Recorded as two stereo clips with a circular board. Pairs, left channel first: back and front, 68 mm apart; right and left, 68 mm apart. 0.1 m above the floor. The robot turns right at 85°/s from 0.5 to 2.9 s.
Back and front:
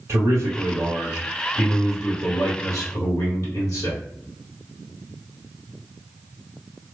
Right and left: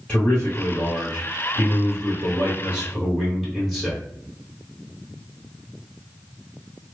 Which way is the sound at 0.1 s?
25° right.